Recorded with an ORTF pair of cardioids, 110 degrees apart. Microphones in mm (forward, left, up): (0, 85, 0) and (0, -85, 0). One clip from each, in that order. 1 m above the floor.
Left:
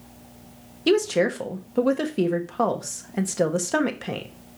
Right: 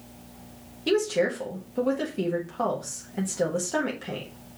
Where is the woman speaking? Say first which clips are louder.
Left 3 dB; 35° left, 1.0 m.